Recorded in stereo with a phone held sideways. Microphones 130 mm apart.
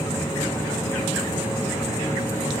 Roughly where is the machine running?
Left.